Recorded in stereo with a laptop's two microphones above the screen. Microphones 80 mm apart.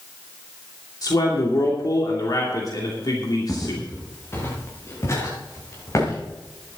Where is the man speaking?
50° left (ahead or behind), 2.5 m.